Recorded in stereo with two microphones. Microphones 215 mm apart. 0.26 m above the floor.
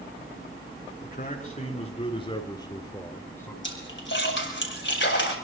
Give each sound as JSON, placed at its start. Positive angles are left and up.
{"t": 1.0, "sound": "a man speaking", "side_deg": 45, "distance_m": 3.5}
{"t": 3.6, "sound": "a splash", "side_deg": 65, "distance_m": 6.5}